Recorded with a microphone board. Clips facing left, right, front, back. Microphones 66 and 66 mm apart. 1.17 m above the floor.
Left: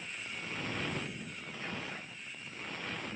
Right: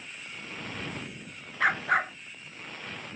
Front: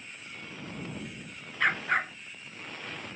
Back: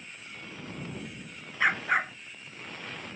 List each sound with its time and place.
1.6 s a dog barking: 95° right